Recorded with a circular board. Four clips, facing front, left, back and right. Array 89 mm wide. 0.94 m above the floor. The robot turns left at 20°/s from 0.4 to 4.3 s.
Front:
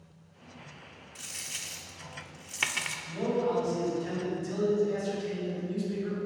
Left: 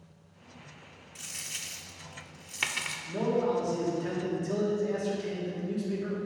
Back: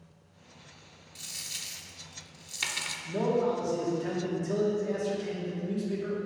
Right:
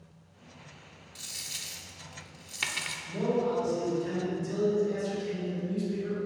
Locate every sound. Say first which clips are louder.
1.1 s a dropped coin: left 2 dB, front 1 dB; 50° left, 0.5 m; by 3.0 s 15° left, 0.5 m
3.0 s a man speaking: left 1 dB, back 2 dB; 160° left, 2 m; by 6.2 s 135° left, 2 m